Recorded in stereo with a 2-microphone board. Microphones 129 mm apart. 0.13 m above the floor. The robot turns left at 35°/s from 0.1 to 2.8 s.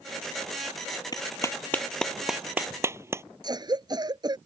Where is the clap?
35° left (ahead or behind); by 3.2 s 20° right (ahead or behind).